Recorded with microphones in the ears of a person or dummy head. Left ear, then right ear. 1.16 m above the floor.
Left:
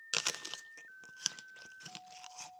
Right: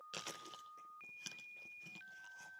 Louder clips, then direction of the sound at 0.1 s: Left 13 dB; 50° left (ahead or behind).